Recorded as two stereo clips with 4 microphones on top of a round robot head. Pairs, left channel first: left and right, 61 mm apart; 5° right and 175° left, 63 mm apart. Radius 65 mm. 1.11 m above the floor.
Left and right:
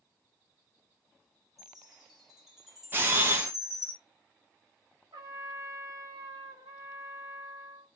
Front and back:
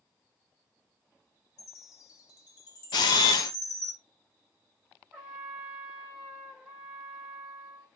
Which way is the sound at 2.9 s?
25° right.